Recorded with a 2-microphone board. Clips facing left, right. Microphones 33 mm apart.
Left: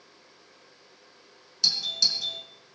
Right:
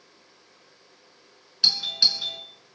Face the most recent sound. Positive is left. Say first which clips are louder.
# right 4 dB
turn(degrees=-35)  # may be behind; listen again after turning